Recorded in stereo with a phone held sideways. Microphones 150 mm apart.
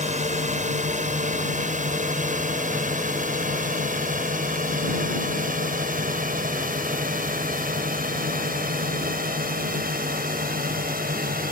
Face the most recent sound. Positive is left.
turn(degrees=-75)  # may be behind; listen again after turning